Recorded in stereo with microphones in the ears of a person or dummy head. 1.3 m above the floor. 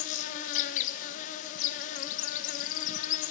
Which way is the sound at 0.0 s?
45° left (ahead or behind).